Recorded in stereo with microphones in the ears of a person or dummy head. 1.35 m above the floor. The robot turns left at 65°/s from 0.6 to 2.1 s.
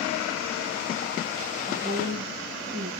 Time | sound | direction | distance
1.7 | a woman speaking | 45° right (ahead or behind) | 4.5 m